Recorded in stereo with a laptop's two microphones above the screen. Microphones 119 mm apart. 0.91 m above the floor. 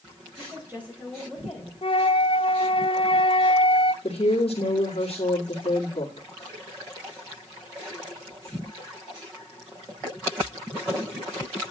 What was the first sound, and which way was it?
A woman speaking, 25° right (ahead or behind).